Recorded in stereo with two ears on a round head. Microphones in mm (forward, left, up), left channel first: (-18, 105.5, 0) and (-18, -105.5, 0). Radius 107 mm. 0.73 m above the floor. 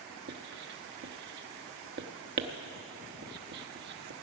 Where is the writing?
50° right (ahead or behind), 0.7 m.